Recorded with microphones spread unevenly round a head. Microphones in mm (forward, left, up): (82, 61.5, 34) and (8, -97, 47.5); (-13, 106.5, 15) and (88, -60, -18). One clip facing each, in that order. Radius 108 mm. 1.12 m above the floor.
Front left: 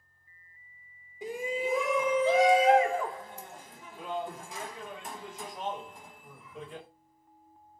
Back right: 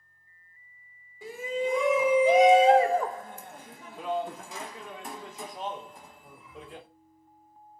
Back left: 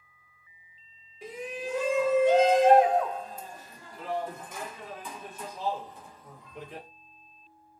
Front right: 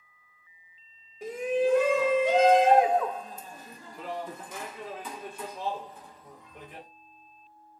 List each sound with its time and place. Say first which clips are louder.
1.2 s a shout: back right 2 dB, front right 10 dB; 10° right, 1.1 m; by 6.9 s 115° right, 2.5 m